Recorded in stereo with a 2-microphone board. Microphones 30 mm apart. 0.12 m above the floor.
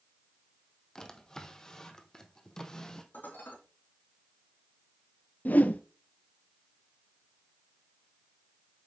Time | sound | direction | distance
0.9 | a drawer | 20° left (ahead or behind) | 1.1 m
3.1 | dishes clattering | 75° left (ahead or behind) | 4 m
5.5 | a whoosh | 60° left (ahead or behind) | 0.6 m